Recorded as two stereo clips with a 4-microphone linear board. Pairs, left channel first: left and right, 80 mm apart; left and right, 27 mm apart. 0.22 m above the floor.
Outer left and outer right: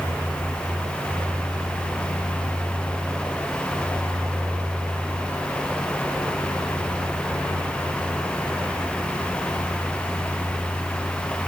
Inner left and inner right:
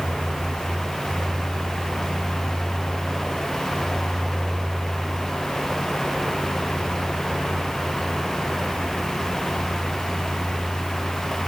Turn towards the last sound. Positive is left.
No sound to turn to.